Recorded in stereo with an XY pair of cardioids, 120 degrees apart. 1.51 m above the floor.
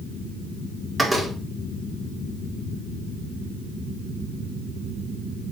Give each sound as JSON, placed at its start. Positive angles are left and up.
{"t": 1.0, "sound": "a door slam", "azimuth_deg": -15, "distance_m": 2.5}